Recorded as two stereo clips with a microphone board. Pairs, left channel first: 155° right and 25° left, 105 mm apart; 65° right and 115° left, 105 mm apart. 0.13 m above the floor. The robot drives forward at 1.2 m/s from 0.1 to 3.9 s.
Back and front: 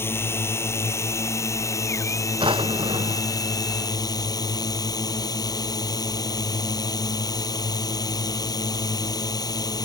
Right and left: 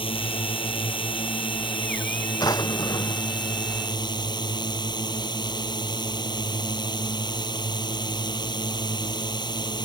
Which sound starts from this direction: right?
A drone, at 0.0 s.